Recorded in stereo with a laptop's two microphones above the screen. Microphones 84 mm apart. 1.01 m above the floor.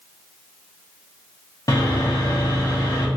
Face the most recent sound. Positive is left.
turn(degrees=45)  # may be behind; listen again after turning